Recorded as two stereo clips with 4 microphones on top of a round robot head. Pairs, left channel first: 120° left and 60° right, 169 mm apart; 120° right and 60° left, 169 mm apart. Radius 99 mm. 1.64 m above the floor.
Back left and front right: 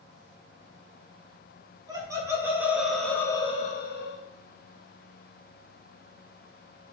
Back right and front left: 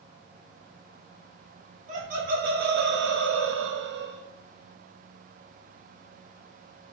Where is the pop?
I don't hear a pop.